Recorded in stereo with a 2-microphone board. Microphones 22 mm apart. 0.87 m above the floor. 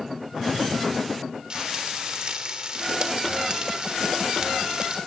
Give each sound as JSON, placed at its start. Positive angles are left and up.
{"t": 1.5, "sound": "frying", "side_deg": -40, "distance_m": 3.0}